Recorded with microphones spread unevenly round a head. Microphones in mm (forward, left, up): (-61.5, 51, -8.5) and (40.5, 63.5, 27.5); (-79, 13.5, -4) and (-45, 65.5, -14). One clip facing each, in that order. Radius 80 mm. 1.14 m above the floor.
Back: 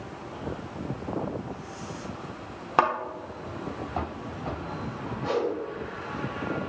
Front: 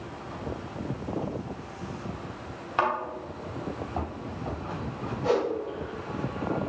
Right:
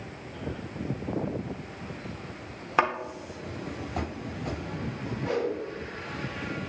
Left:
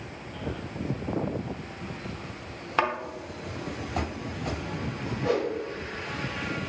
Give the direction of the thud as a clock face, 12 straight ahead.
4 o'clock.